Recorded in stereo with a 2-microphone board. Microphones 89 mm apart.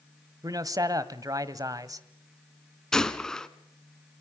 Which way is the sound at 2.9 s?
5° left (ahead or behind).